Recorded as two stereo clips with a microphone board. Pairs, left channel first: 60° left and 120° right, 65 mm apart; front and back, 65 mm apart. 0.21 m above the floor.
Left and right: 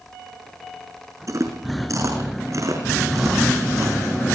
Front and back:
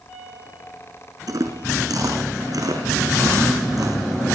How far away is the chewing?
About 6 m.